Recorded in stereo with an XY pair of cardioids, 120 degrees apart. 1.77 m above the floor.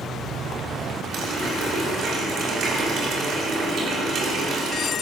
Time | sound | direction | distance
1.1 | a running tap | 60° right | 3.5 m